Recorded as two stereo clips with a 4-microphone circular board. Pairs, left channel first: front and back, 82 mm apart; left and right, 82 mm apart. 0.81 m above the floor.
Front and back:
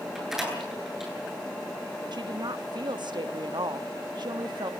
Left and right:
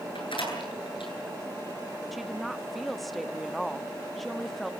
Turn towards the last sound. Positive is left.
turn(degrees=180)